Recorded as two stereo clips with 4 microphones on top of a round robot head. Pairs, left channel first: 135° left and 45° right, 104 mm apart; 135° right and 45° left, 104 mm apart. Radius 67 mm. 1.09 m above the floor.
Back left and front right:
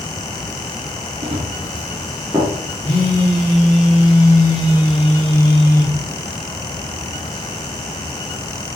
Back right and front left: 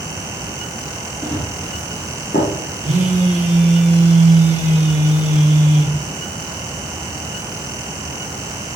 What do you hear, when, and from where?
1.2 s running footsteps: 70° right, 1.6 m; by 2.5 s 125° right, 1.5 m
2.8 s a phone buzzing: 70° left, 1.3 m